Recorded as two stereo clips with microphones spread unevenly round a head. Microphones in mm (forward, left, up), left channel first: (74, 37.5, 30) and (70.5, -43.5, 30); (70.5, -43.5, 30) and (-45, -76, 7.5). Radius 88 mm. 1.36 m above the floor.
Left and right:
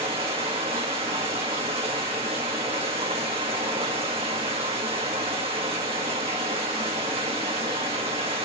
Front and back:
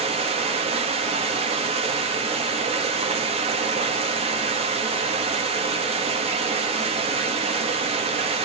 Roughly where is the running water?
Behind right.